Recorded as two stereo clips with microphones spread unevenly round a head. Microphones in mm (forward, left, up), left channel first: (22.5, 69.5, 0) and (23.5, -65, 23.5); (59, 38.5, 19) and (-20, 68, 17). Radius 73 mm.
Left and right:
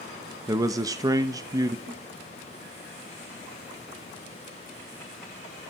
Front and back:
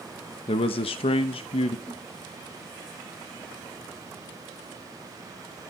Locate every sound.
0.5 s a man speaking: 20° right, 0.7 m
1.9 s a thud: 105° right, 7 m